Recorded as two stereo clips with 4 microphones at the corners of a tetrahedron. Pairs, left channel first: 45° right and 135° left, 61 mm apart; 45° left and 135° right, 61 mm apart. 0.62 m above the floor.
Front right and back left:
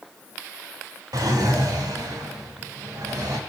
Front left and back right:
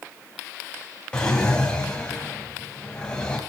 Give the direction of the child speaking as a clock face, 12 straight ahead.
No child speaking in this recording.